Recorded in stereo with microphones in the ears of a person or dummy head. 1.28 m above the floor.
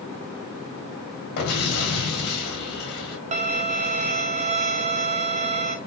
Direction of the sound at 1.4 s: 65° left (ahead or behind).